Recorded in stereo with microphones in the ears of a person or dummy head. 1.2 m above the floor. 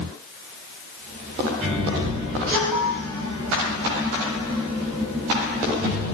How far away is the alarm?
About 4.5 m.